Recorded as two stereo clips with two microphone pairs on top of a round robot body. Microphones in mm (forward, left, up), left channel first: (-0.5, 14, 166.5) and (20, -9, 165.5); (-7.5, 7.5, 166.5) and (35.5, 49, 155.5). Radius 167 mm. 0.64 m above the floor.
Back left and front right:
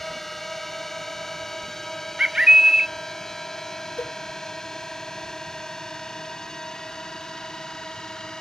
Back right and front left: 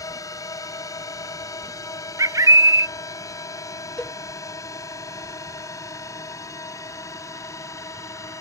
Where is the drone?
150° right; by 8.4 s 165° right.